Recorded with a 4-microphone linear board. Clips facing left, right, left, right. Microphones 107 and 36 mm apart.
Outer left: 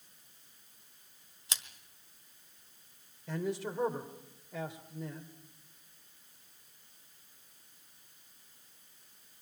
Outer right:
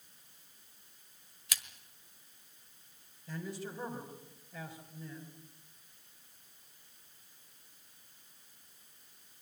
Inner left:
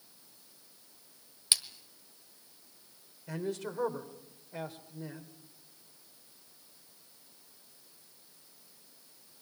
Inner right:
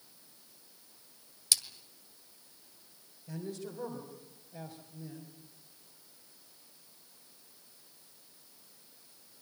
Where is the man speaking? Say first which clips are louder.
Outer left 6 dB, inner left 5 dB; 75° left (ahead or behind), 3 m.